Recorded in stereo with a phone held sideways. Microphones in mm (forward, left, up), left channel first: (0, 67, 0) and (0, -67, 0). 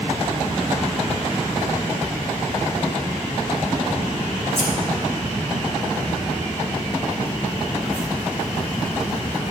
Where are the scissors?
60° left (ahead or behind), 2.0 m.